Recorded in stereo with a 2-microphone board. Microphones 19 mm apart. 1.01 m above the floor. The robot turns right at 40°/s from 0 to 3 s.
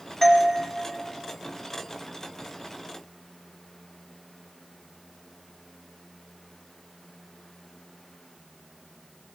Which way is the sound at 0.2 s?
15° left (ahead or behind).